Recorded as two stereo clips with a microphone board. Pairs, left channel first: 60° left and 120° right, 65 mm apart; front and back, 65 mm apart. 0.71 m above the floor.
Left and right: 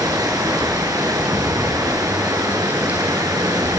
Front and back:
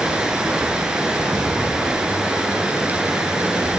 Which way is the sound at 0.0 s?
100° right.